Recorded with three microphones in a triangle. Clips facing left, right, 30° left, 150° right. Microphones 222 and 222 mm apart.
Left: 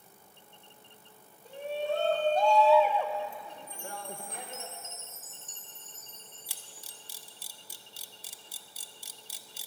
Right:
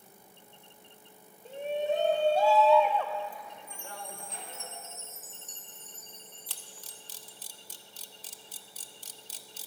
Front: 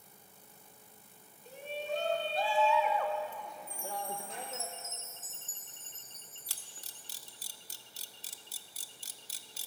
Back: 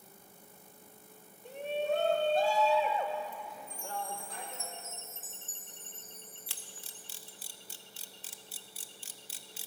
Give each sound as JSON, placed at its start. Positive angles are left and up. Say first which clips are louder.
{"t": 1.4, "sound": "a shout", "louder": "right 2 dB, back 6 dB", "azimuth_deg": -155, "distance_m": 1.3}
{"t": 3.7, "sound": "a chime", "louder": "left 4 dB, front 1 dB", "azimuth_deg": -15, "distance_m": 0.8}
{"t": 6.5, "sound": "a camera shutter", "louder": "right 1 dB, back 4 dB", "azimuth_deg": 15, "distance_m": 0.6}